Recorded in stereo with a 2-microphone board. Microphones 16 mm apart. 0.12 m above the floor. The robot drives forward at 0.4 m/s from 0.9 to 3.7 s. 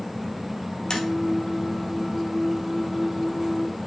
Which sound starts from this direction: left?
Tapping, at 0.9 s.